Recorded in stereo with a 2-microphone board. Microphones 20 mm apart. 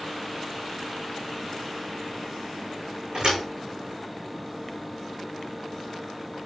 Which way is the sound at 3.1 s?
45° right (ahead or behind).